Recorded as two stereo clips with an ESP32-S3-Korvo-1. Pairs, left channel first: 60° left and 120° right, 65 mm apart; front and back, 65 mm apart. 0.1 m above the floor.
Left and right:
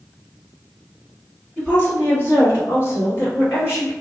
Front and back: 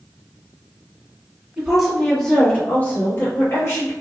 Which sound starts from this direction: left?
A woman speaking, at 1.6 s.